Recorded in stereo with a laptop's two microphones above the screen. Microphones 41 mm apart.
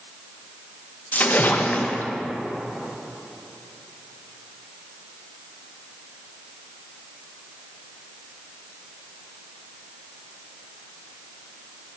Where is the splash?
40° left (ahead or behind), 0.6 m.